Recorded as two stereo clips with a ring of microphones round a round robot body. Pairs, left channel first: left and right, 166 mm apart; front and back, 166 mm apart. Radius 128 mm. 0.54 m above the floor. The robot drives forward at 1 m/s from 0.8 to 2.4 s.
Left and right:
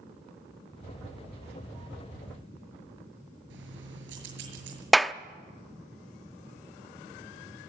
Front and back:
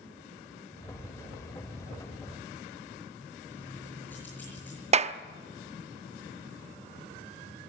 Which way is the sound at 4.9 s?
Straight behind.